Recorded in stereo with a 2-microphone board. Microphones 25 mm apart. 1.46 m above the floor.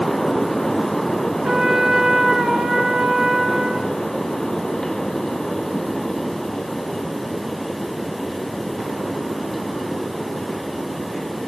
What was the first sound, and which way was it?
A trumpet, 30° right (ahead or behind).